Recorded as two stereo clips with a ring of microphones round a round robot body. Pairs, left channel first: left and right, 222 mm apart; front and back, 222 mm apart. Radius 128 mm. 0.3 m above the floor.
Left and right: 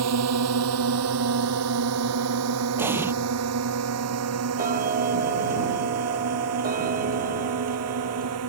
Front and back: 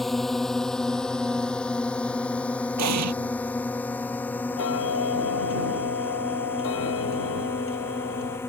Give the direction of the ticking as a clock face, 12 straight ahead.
1 o'clock.